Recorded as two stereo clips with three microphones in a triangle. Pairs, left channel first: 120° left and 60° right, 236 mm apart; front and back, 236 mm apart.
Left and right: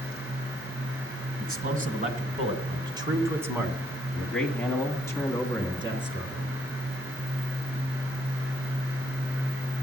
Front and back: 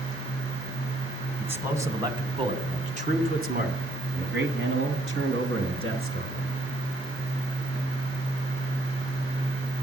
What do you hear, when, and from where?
1.4 s a man speaking: 100° right, 1.9 m; by 6.5 s straight behind, 2.5 m